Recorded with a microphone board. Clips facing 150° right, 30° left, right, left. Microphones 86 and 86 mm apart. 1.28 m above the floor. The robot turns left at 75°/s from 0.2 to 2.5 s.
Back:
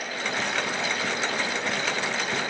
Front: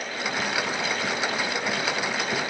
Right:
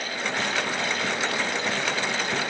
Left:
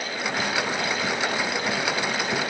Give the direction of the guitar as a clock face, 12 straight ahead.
No guitar in this recording.